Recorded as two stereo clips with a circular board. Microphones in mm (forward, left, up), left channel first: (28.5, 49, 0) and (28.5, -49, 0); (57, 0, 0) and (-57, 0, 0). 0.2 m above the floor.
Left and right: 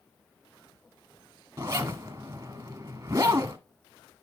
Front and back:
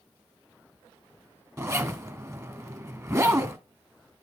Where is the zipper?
130° right, 1.1 m.